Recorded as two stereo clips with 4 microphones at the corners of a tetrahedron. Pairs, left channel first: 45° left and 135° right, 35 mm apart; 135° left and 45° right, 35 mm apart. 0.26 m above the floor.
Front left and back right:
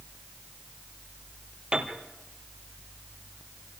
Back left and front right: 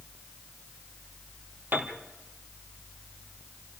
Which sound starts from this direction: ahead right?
A piano, at 1.7 s.